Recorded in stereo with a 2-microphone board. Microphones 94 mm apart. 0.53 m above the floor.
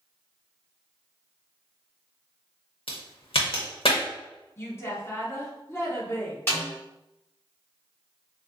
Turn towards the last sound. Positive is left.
turn(degrees=25)  # may be behind; listen again after turning